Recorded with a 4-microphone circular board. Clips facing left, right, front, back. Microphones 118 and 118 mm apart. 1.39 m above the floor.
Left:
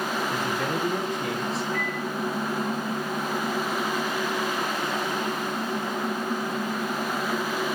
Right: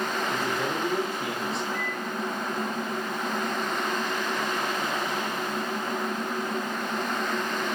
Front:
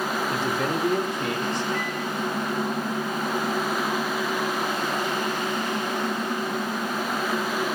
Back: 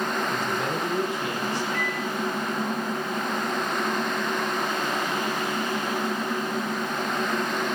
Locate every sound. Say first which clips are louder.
0.3 s a man speaking: left 1 dB, front 2 dB; 10° right, 3 m; by 1.6 s 5° left, 3.5 m
1.7 s a microwave: left 3 dB, even; 140° right, 7 m